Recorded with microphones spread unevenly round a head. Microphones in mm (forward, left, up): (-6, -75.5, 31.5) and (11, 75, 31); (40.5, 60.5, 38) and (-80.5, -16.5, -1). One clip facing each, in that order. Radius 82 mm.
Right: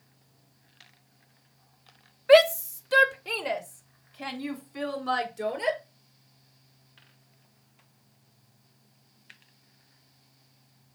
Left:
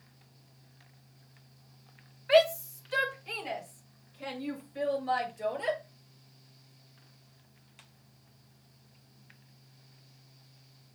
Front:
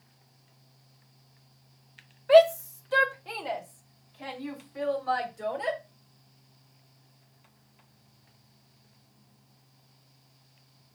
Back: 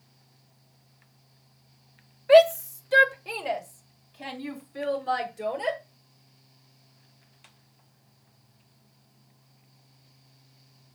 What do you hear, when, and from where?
2.3 s a shout: 65° right, 1.3 m; by 5.8 s 75° right, 5 m